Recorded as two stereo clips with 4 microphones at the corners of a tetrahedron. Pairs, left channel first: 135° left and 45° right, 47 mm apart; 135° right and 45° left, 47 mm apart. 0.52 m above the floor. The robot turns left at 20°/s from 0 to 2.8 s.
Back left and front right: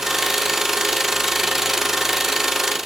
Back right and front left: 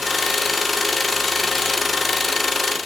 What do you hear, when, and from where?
Only background noise.